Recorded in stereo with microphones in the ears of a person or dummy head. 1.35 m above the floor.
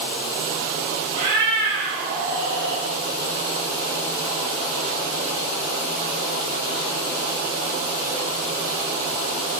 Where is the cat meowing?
20° right (ahead or behind), 1.3 m; by 2.8 s 50° right (ahead or behind), 1.9 m.